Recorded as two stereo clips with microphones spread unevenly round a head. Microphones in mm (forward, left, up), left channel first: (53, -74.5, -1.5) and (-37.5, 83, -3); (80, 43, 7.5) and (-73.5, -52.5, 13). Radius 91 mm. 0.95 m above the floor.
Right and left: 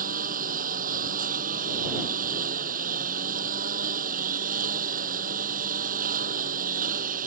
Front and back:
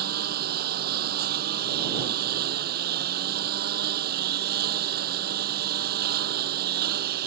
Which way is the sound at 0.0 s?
170° left.